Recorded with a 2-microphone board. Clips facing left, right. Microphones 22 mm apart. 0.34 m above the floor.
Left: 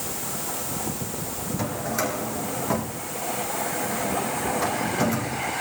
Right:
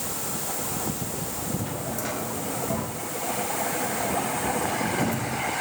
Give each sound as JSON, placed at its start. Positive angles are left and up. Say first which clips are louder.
{"t": 1.6, "sound": "a drawer", "louder": "left 4 dB", "side_deg": 50, "distance_m": 8.0}